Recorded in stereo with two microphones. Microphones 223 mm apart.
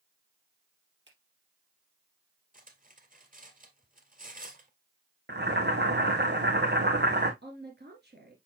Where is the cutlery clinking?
40° right (ahead or behind), 1.8 m.